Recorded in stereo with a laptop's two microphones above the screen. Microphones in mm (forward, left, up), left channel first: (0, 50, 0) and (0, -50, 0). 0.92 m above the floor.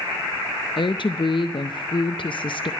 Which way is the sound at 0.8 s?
55° left (ahead or behind).